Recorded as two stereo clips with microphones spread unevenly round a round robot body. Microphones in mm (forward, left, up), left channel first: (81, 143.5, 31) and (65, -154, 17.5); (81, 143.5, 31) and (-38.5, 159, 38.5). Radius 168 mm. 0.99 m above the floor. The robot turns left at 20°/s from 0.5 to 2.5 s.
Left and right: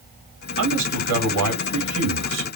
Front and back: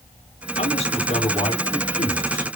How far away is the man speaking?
About 2.5 m.